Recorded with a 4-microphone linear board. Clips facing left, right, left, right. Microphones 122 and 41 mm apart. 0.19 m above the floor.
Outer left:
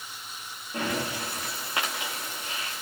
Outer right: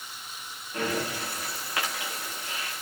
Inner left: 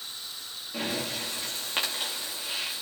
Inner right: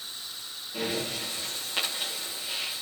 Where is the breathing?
25° left (ahead or behind), 5 m.